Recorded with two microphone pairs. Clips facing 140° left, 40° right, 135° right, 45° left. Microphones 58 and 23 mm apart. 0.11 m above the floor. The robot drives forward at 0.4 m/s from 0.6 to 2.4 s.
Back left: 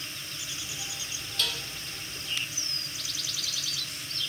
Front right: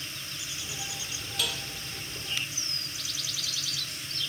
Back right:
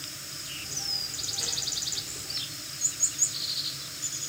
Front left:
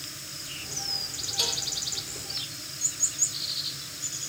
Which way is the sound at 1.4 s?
40° left.